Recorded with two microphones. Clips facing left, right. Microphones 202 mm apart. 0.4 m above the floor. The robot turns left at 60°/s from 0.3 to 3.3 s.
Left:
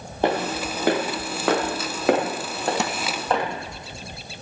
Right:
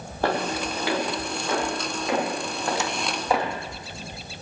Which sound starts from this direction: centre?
Footsteps, at 0.2 s.